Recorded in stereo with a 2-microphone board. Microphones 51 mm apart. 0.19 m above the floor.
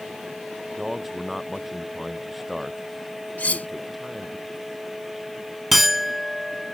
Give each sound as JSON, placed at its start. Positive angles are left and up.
{"t": 0.7, "sound": "a man speaking", "side_deg": -5}
{"t": 3.4, "sound": "cutlery clinking", "side_deg": 30}
{"t": 5.7, "sound": "a clink", "side_deg": 0}